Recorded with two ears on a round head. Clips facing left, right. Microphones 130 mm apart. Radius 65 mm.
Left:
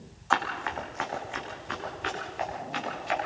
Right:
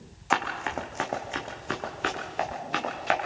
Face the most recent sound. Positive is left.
turn(degrees=-70)  # may be behind; listen again after turning